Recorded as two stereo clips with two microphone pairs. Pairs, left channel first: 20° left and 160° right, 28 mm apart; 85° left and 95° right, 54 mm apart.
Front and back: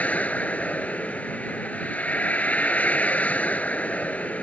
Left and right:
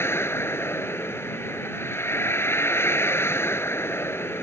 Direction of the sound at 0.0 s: 45° left.